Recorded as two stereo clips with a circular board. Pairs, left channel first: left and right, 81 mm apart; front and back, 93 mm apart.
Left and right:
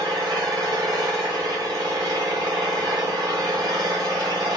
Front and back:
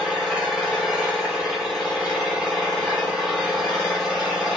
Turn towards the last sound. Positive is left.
turn(degrees=-95)